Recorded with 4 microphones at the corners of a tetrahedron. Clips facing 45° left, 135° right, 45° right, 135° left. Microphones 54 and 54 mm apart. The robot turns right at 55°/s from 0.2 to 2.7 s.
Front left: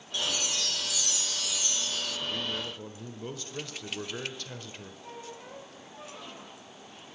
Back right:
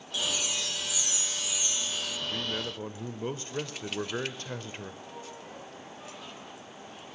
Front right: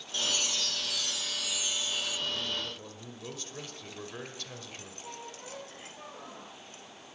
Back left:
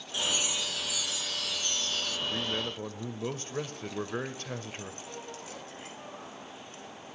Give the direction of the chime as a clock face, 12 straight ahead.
6 o'clock.